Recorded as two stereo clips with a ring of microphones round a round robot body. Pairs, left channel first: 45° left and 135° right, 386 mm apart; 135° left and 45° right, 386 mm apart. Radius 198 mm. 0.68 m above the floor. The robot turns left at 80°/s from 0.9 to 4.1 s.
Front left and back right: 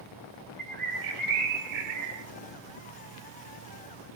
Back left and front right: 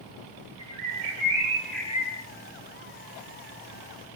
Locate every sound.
0.6 s a bird: 70° right, 1.7 m; by 2.2 s 175° right, 1.7 m